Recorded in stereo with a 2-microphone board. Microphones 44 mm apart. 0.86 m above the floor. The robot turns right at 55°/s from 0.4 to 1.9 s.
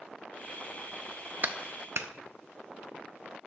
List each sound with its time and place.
1.4 s a clap: 45° right (ahead or behind), 0.6 m; by 2.1 s 65° right (ahead or behind), 0.6 m